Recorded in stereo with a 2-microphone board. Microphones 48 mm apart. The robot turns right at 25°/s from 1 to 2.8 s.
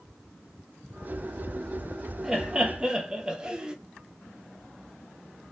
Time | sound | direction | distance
2.2 | laughter | 10° right (ahead or behind) | 0.8 m